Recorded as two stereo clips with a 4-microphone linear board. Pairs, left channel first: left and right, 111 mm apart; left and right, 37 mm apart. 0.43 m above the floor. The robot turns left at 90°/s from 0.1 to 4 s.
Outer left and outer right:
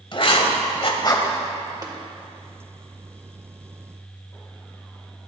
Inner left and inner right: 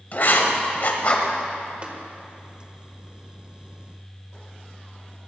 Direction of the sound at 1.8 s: 35° right (ahead or behind).